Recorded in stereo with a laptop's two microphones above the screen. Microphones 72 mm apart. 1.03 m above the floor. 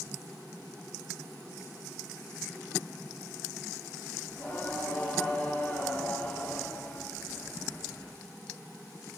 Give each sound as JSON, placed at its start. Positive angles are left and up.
{"t": 4.3, "sound": "singing", "side_deg": 20, "distance_m": 3.0}